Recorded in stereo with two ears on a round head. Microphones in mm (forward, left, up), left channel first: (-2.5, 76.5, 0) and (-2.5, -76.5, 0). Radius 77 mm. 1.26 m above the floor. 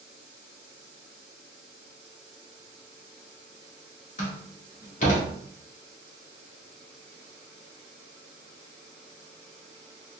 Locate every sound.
4.2 s a door slam: 50° left (ahead or behind), 1.5 m